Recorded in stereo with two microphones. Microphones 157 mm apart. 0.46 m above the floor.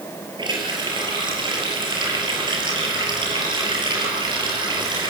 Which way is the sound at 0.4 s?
30° right (ahead or behind).